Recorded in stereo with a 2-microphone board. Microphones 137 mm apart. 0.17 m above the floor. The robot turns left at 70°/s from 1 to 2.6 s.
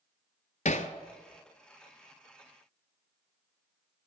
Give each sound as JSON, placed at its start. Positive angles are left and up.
{"t": 0.7, "sound": "hammering", "side_deg": 65, "distance_m": 0.6}